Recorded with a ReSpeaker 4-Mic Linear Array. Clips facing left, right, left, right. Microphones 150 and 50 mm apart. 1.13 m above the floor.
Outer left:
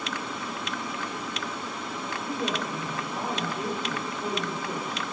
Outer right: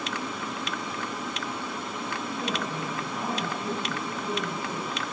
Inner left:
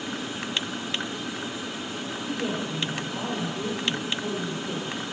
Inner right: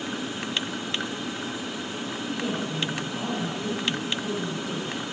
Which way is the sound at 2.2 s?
45° left (ahead or behind).